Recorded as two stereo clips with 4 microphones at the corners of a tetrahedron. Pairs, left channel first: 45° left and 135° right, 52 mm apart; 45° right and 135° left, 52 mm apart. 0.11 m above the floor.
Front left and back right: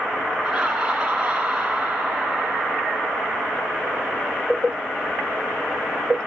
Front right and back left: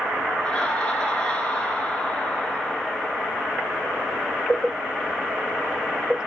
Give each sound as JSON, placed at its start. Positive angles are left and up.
{"t": 0.4, "sound": "laughter", "azimuth_deg": -95, "distance_m": 1.3}